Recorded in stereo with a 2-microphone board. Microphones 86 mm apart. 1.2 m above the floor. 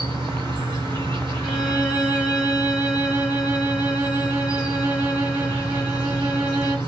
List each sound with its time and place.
0.0 s an insect: 65° right (ahead or behind), 1.1 m
1.4 s a violin: 20° right (ahead or behind), 1.8 m